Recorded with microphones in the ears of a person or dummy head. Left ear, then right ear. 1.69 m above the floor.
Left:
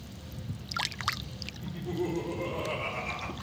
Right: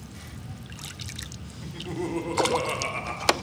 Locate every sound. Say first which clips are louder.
1.6 s laughter: right 2 dB; 50° right (ahead or behind), 0.9 m; by 3.3 s 15° right (ahead or behind), 0.6 m